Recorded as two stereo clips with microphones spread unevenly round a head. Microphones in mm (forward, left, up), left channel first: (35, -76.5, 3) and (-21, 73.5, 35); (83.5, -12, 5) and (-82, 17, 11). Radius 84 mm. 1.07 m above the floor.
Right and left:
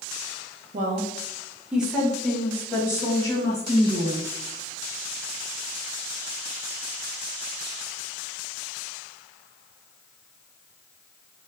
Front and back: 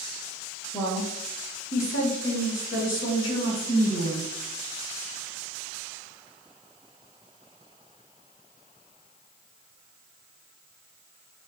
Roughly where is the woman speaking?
Ahead left.